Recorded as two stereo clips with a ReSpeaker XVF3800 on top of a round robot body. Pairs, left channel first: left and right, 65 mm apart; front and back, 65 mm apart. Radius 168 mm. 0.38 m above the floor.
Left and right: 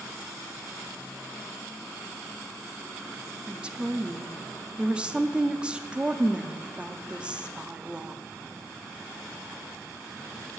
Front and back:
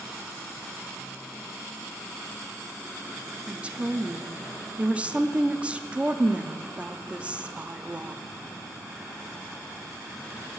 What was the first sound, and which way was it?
A woman speaking, 140° right.